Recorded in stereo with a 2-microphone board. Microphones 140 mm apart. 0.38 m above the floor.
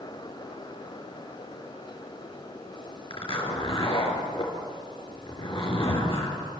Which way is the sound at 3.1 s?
40° left (ahead or behind).